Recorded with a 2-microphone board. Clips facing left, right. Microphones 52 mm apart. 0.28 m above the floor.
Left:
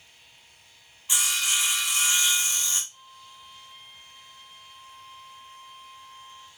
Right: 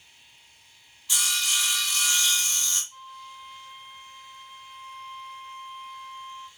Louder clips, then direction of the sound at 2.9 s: Right 7 dB; 35° right (ahead or behind).